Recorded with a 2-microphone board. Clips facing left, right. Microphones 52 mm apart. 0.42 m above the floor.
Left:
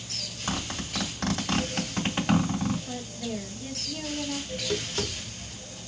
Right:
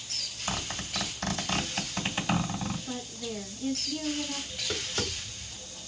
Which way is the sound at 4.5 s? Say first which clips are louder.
Left 4 dB; 10° right (ahead or behind).